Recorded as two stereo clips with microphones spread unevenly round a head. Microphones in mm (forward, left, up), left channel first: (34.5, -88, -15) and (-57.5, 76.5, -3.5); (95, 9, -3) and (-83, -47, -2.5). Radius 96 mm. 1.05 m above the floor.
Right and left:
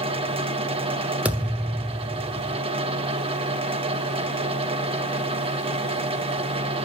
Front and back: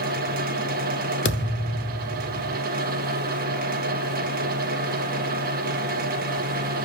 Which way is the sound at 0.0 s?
170° left.